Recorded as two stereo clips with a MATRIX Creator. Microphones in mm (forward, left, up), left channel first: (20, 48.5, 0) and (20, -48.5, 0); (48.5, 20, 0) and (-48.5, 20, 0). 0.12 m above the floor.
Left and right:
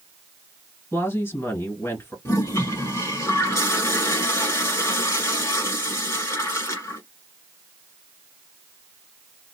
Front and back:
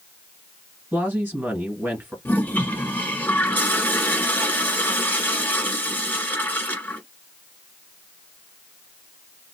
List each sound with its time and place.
0.9 s a woman speaking: 125° left, 1.8 m
2.2 s a toilet flushing: 55° left, 1.5 m